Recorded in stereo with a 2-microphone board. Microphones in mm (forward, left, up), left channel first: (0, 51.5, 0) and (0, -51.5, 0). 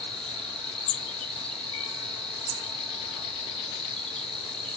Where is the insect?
5° left (ahead or behind), 1.5 m.